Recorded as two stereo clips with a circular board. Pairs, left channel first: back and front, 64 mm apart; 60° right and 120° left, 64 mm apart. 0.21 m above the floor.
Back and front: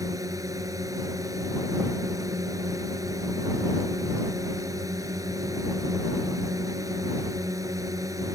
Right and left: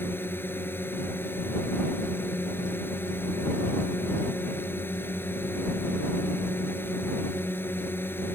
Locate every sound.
0.0 s a drone: 10° right